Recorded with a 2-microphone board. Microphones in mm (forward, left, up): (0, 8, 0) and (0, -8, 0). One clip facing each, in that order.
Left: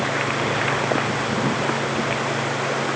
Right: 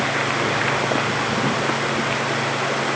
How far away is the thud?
No thud in this recording.